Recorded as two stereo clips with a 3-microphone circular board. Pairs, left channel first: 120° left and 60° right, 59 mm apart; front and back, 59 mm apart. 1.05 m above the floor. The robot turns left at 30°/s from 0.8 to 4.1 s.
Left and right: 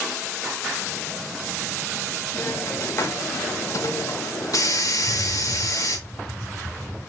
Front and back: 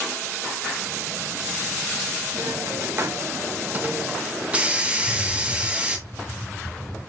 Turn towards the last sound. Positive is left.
turn(degrees=180)